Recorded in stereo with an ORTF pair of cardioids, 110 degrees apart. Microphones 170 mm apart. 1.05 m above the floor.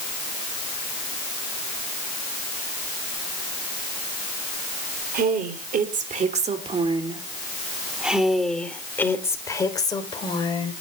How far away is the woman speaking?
About 3.5 m.